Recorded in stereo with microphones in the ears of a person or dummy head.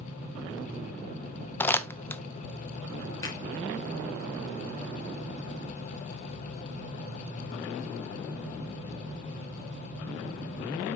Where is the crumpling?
15° left (ahead or behind), 0.6 m.